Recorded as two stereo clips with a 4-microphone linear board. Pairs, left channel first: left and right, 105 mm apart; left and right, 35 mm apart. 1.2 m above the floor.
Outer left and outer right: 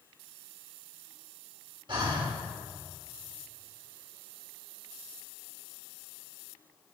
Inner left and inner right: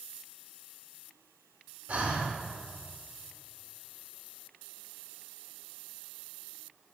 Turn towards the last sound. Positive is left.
turn(degrees=-50)  # may be behind; listen again after turning